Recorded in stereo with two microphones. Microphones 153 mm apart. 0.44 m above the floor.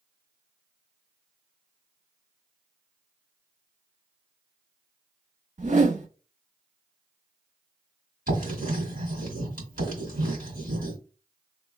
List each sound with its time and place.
5.6 s a whoosh: 55° right (ahead or behind), 0.8 m
8.3 s writing: 75° right (ahead or behind), 2 m